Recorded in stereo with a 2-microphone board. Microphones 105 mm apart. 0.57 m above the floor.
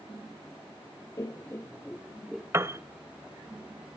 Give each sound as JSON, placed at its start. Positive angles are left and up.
{"t": 1.2, "sound": "laughter", "side_deg": 30, "distance_m": 0.7}
{"t": 2.5, "sound": "a piano", "side_deg": -25, "distance_m": 0.7}